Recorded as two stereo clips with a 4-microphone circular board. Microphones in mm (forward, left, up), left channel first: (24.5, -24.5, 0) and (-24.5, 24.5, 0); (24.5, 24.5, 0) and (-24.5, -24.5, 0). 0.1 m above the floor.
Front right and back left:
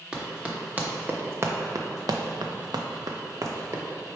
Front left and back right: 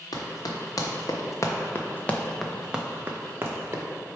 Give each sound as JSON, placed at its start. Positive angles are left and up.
{"t": 0.1, "sound": "running footsteps", "azimuth_deg": 60, "distance_m": 1.4}